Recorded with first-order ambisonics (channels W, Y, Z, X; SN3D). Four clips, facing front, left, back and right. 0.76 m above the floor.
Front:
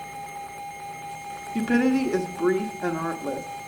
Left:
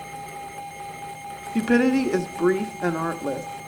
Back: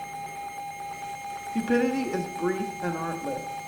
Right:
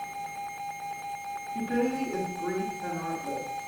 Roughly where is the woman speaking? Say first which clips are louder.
Left 9 dB, front 3 dB; left.